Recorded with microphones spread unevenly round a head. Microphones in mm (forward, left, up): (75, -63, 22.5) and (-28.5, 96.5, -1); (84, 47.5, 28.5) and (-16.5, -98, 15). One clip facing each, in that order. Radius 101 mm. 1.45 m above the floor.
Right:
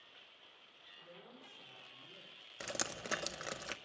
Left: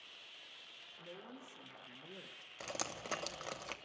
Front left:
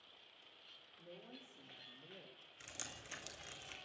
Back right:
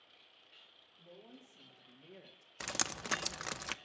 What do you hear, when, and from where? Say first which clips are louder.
1.0 s a woman speaking: left 5 dB, even; 140° left, 3.5 m; by 2.5 s 160° left, 1.3 m
2.6 s dripping: right 1 dB, back right 14 dB; 130° right, 0.7 m